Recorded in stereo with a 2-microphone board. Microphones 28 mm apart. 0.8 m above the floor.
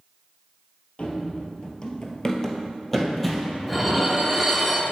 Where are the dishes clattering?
Centre (ahead or behind), 1.1 m.